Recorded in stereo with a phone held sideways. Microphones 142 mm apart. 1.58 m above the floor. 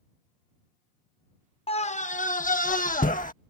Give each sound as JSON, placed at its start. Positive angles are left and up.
{"t": 1.7, "sound": "a scream", "side_deg": 40}